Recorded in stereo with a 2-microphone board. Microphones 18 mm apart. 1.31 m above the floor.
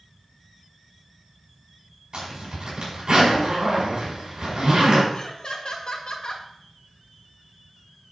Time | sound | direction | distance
2.1 | a zipper | 55° right (ahead or behind) | 6 m
5.1 | laughter | 55° left (ahead or behind) | 2.0 m